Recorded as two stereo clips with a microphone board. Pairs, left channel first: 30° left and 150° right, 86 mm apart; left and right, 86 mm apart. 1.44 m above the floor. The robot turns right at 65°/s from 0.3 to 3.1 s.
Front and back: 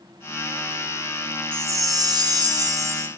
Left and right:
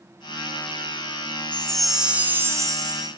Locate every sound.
1.5 s a chime: 160° left, 0.8 m; by 3.1 s 100° right, 0.8 m